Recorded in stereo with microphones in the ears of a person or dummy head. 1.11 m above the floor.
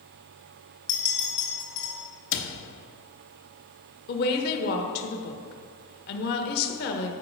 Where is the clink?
80° left, 2.5 m.